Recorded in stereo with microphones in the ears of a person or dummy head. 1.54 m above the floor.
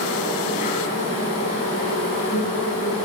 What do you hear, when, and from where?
0.0 s an insect: 35° left (ahead or behind), 3.5 m